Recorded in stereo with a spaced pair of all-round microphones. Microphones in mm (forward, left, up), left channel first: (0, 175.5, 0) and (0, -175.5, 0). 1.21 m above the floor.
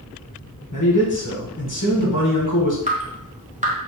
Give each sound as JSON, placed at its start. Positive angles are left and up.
{"t": 0.7, "sound": "a man speaking", "side_deg": 60, "distance_m": 1.2}
{"t": 2.9, "sound": "dripping", "side_deg": -20, "distance_m": 0.8}